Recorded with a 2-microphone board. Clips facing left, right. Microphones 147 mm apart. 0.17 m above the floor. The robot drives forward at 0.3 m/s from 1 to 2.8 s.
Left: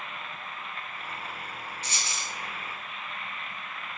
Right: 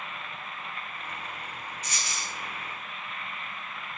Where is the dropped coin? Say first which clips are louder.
Even; 30° left (ahead or behind), 0.5 m; by 2.3 s 25° left (ahead or behind), 0.6 m.